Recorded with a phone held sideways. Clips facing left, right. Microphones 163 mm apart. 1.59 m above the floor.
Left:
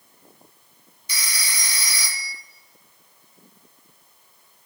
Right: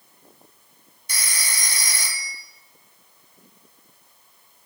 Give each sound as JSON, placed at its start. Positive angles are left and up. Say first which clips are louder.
{"t": 1.1, "sound": "a phone ringing", "louder": "even", "side_deg": -50, "distance_m": 0.8}